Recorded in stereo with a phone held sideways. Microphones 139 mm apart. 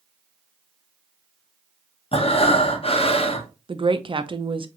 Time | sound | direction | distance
2.1 | breathing | 45° left (ahead or behind) | 0.8 m
3.7 | a woman speaking | 40° right (ahead or behind) | 0.6 m